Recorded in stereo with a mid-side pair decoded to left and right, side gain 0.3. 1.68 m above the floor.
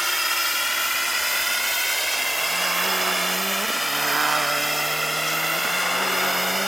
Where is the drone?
5° left; by 6.7 s 5° right.